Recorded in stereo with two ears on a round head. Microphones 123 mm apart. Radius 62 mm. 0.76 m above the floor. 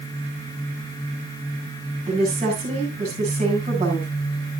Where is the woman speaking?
50° right (ahead or behind), 7.5 m.